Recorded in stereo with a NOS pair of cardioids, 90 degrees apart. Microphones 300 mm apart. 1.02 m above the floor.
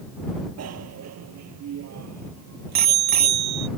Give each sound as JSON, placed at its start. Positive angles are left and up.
{"t": 0.6, "sound": "a bicycle bell", "azimuth_deg": -60}